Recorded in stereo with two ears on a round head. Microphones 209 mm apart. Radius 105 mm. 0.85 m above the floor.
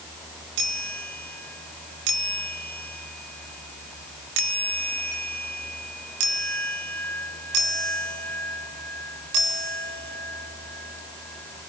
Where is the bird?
No bird in this recording.